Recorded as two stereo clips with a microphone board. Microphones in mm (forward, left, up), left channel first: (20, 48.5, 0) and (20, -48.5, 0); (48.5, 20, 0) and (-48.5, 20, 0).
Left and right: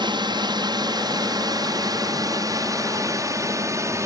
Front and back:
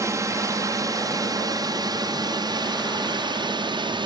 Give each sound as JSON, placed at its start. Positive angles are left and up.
{"t": 0.0, "sound": "a drone", "azimuth_deg": -125}